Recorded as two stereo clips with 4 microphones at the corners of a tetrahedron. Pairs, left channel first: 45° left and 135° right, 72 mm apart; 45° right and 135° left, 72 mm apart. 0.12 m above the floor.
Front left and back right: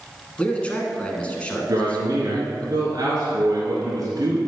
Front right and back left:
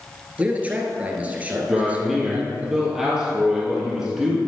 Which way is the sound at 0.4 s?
95° left.